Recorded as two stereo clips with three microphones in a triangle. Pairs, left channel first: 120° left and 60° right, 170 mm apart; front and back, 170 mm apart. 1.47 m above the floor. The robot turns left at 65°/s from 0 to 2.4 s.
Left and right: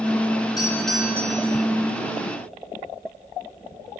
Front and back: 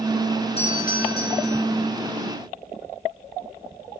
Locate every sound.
0.6 s a doorbell: 55° left, 1.9 m; by 1.6 s 15° right, 1.9 m